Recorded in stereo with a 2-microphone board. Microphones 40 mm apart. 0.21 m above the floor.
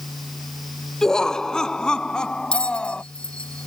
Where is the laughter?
15° left (ahead or behind); by 3.0 s 25° left (ahead or behind).